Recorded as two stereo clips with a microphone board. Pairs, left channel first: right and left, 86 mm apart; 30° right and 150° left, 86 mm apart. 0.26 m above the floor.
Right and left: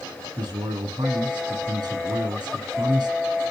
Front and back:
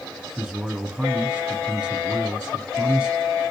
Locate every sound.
0.4 s a man speaking: 65° left, 3 m